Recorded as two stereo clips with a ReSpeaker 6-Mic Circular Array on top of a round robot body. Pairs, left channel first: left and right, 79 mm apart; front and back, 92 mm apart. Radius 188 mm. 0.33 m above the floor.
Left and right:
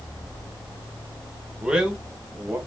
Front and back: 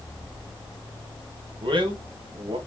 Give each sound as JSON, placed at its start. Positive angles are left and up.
{"t": 1.6, "sound": "a man speaking", "azimuth_deg": -170, "distance_m": 2.0}